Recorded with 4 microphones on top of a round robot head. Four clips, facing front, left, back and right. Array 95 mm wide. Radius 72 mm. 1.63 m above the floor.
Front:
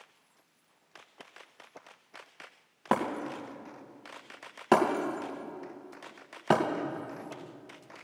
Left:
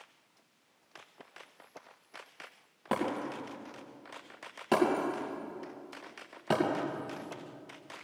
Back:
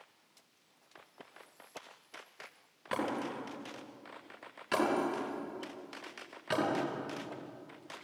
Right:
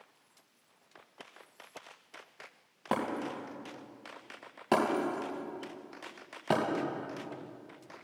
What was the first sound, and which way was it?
Breaking glass, 5° right.